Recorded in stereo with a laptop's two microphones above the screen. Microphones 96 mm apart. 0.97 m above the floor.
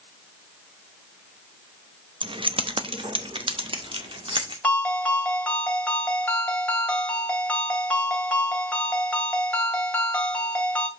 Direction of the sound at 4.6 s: 15° left (ahead or behind).